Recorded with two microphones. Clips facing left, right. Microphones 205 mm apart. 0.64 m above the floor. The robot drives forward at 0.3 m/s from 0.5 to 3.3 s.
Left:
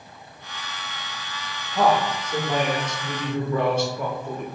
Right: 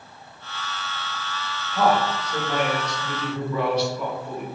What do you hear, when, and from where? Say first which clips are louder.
1.7 s a man speaking: left 1 dB; 45° left (ahead or behind), 1.4 m; by 4.5 s 50° left (ahead or behind), 1.3 m